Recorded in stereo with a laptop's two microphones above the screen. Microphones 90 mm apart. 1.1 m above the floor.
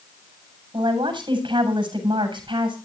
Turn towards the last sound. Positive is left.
turn(degrees=-50)  # may be behind; listen again after turning